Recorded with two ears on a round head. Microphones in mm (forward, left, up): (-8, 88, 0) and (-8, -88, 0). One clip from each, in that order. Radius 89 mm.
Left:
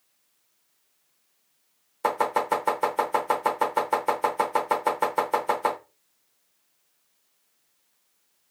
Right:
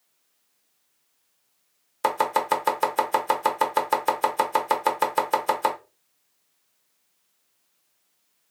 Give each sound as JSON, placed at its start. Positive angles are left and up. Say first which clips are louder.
{"t": 2.0, "sound": "chopping", "louder": "right 1 dB", "side_deg": -40, "distance_m": 0.7}